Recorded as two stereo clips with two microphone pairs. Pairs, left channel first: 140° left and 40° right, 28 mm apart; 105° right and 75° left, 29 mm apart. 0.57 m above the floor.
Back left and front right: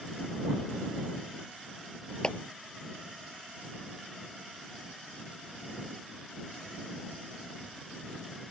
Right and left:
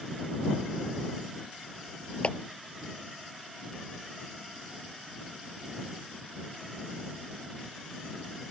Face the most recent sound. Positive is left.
turn(degrees=-155)